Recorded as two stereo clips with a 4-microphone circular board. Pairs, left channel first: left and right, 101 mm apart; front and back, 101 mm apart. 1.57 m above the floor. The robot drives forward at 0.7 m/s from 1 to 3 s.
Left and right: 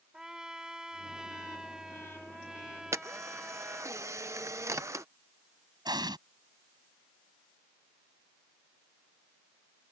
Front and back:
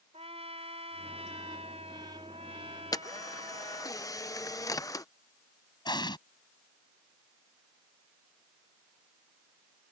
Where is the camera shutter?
35° right; by 5.0 s 40° right.